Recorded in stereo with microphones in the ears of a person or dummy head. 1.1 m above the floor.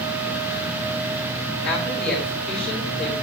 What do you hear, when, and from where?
1.6 s a woman speaking: 5° left (ahead or behind), 4.5 m